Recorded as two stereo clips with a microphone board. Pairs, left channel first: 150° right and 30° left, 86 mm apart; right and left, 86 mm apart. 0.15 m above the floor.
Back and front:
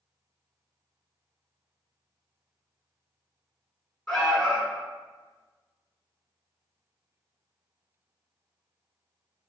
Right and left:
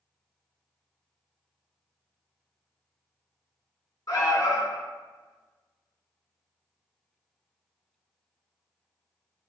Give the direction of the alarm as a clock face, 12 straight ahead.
2 o'clock.